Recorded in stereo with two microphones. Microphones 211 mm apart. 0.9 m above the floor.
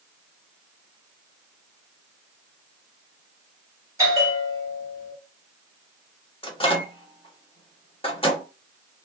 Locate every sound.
4.0 s a bell: 15° right (ahead or behind), 1.5 m
6.4 s a microwave: 25° left (ahead or behind), 0.9 m